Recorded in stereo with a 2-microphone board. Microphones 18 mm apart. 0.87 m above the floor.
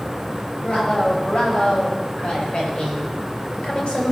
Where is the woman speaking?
70° left (ahead or behind), 5.5 m; by 4.1 s 75° left (ahead or behind), 4 m.